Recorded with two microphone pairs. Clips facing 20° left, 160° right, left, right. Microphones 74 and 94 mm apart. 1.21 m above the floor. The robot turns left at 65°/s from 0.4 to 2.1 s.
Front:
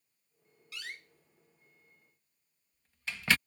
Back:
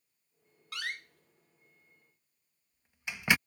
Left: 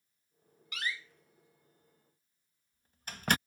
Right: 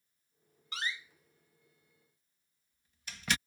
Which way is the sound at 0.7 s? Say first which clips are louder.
Back 7 dB, even; 145° right.